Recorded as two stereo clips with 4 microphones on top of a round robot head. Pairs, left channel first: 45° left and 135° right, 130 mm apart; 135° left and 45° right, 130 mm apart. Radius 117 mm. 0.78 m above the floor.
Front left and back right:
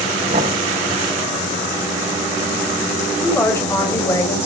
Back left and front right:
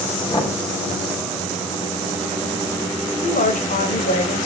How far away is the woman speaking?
About 4 m.